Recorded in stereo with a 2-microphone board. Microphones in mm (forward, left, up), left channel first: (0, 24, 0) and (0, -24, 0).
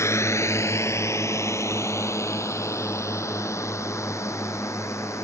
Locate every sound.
0.0 s a drone: 75° left (ahead or behind); by 5.2 s 85° left